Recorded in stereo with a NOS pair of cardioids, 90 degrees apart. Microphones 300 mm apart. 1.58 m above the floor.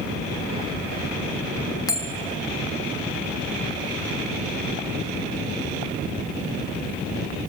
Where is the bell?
10° left, 3 m.